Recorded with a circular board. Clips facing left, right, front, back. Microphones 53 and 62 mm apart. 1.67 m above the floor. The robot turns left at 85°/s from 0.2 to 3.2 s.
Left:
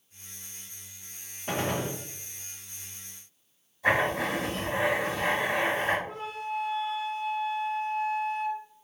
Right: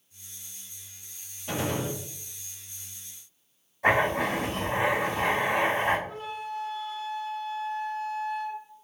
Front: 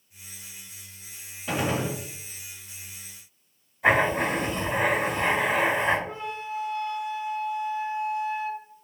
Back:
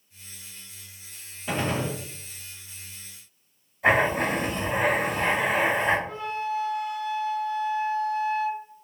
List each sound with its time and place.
1.5 s a gunshot: 100° left, 0.8 m; by 2.0 s 55° left, 0.8 m
3.8 s writing: 90° right, 1.8 m
6.1 s a flute: 65° left, 0.8 m